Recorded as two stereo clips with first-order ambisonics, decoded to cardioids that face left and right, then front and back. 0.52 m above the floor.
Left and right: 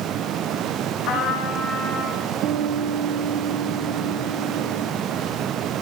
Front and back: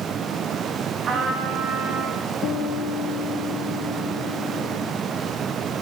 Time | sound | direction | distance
1.1 | a trumpet | 125° left | 5 m
2.4 | a guitar | 45° right | 1.0 m